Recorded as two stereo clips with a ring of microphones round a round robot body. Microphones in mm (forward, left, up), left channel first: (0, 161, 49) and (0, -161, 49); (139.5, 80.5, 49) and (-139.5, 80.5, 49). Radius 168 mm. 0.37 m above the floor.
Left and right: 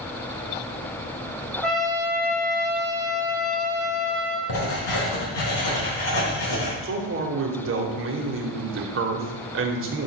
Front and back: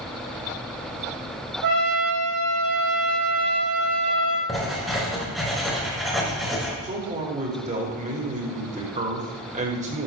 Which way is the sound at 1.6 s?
Straight behind.